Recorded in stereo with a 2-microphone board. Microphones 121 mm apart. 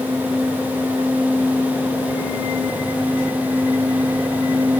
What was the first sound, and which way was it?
Only background noise.